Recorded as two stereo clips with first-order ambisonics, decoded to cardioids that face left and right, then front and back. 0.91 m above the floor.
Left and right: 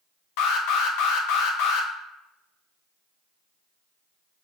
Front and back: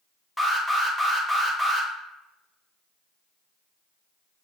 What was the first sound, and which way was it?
An alarm, 90° left.